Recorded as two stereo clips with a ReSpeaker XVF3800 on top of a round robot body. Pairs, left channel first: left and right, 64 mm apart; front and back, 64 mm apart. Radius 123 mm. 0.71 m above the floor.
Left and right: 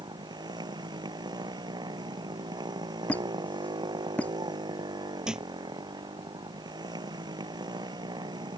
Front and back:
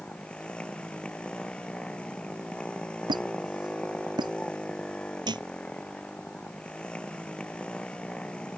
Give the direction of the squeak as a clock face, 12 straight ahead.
7 o'clock.